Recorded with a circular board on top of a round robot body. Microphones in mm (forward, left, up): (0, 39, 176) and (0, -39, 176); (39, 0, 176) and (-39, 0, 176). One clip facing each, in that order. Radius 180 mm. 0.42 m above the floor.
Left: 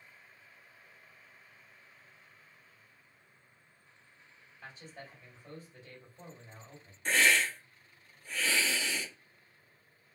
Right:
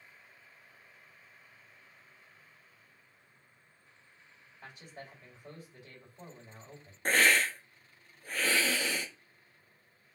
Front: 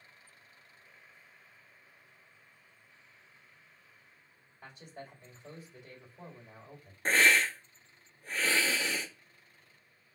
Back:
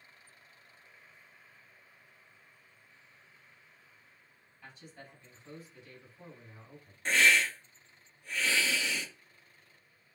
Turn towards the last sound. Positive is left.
turn(degrees=-50)